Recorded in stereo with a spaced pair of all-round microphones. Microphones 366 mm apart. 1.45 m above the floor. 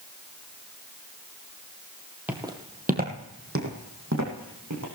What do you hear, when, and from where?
2.3 s footsteps: 5° right (ahead or behind), 2 m; by 4.8 s 55° right (ahead or behind), 4 m